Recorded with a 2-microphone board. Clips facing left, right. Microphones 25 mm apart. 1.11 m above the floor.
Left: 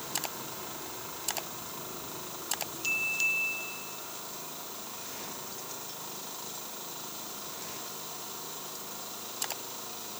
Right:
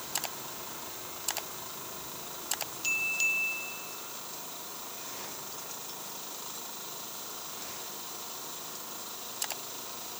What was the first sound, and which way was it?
Only background noise.